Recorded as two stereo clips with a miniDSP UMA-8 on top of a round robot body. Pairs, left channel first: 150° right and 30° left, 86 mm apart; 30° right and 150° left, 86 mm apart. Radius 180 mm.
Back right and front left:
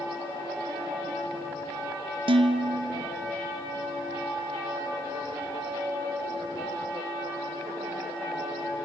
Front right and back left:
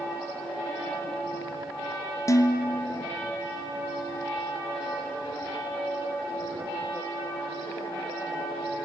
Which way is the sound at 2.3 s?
25° left.